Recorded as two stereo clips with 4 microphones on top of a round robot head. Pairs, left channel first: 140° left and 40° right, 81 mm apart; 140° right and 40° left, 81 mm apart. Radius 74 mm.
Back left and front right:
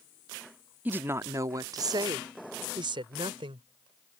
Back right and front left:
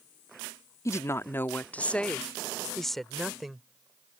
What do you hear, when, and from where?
0.8 s a woman speaking: 105° right; by 3.6 s 45° right